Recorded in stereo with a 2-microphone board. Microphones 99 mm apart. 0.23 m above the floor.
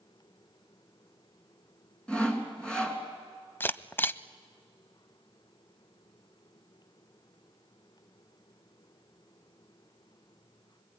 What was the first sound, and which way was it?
Sawing, 10° left (ahead or behind).